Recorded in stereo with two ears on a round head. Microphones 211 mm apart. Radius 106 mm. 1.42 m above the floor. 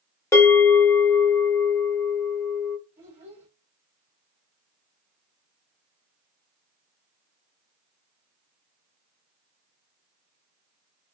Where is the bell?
10° left (ahead or behind), 1.5 m.